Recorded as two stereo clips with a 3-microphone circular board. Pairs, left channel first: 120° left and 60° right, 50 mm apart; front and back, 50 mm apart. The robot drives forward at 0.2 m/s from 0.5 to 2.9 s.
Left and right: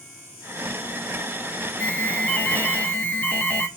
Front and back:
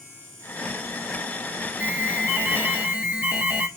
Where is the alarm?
145° left, 1.3 m; by 3.7 s 155° left, 1.4 m.